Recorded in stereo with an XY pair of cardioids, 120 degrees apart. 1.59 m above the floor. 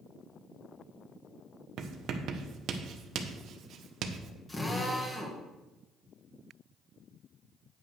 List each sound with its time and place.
1.8 s writing: 60° right, 1.0 m
4.5 s a drill: 10° left, 2 m